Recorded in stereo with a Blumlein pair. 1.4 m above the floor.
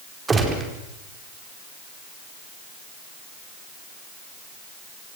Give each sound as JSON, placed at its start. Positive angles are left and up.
{"t": 0.3, "sound": "a gunshot", "azimuth_deg": -15, "distance_m": 4.5}